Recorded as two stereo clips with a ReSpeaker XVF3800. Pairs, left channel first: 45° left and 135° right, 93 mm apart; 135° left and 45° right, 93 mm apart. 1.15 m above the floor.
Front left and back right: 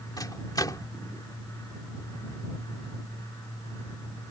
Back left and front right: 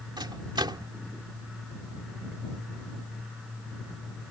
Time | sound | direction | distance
0.2 | a microwave | 5° right | ?